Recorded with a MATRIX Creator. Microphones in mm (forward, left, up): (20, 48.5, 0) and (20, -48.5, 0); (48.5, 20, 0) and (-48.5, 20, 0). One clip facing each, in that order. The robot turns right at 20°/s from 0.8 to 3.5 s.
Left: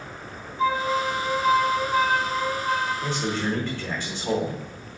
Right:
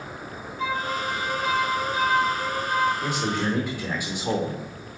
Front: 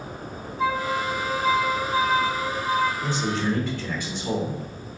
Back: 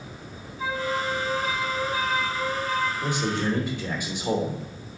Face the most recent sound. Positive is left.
turn(degrees=-135)